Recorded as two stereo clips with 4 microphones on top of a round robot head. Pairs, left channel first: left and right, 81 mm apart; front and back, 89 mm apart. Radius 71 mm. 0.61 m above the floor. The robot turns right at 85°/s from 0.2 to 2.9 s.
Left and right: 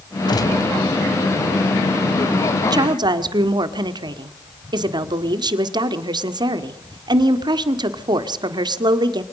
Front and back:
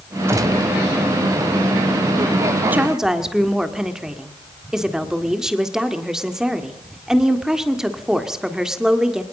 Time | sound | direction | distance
0.3 | a gunshot | 120° left | 3 m
2.7 | a woman speaking | 115° right | 1.8 m